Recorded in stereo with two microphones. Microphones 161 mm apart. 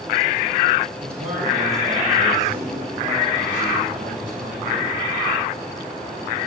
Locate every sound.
1.0 s a man speaking: 70° right (ahead or behind), 6 m; by 4.9 s 55° right (ahead or behind), 11.5 m